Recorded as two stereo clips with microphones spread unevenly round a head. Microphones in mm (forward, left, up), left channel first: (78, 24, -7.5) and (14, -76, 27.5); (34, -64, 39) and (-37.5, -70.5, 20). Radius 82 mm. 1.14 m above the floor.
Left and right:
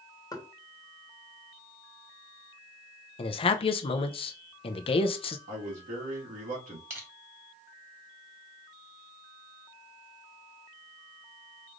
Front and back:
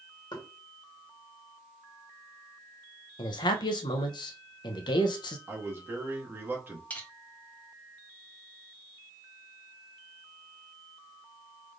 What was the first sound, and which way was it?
Knocking, 5° right.